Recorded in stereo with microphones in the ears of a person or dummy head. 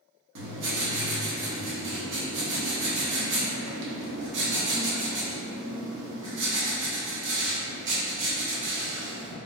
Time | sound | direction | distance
0.3 | writing | 70° right (ahead or behind) | 0.9 m